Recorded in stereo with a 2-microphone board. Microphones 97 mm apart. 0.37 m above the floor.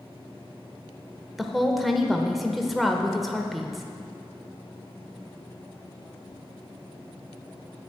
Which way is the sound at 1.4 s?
Centre (ahead or behind).